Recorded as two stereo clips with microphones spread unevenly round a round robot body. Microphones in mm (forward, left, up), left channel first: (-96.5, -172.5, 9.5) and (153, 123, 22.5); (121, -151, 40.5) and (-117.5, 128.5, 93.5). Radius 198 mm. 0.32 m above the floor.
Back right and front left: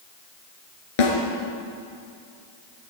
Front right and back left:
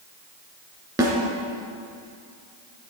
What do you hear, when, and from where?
1.0 s a snare drum: 145° right, 3 m